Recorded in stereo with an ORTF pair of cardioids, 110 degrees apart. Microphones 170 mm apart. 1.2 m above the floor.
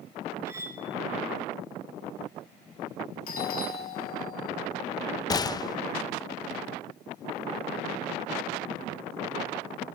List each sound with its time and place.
0.5 s cutlery clinking: 15° right, 3 m
3.3 s a doorbell: 60° left, 2 m
5.3 s a gunshot: 20° left, 0.6 m